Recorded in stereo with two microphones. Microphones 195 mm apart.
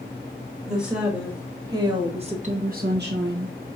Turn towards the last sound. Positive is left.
turn(degrees=-85)